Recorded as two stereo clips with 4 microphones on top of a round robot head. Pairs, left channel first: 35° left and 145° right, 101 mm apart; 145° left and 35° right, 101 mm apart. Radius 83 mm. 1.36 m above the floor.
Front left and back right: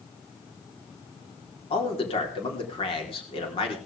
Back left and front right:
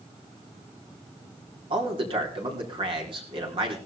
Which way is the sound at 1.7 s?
Straight ahead.